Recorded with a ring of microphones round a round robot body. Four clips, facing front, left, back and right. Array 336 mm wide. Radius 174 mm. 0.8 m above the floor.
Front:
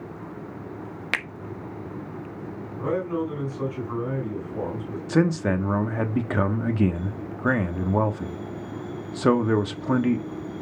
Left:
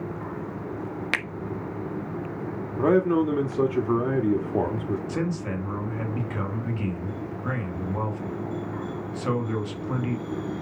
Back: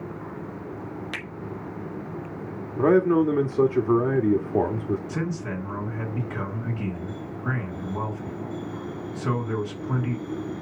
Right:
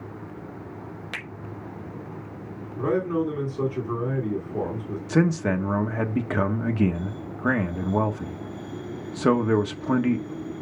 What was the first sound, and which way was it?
A finger snap, 45° left.